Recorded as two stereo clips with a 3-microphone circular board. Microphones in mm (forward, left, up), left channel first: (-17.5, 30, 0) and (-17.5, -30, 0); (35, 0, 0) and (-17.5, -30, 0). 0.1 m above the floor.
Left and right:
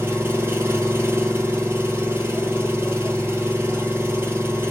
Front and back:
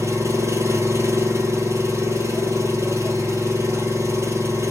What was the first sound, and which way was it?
An engine running, 130° right.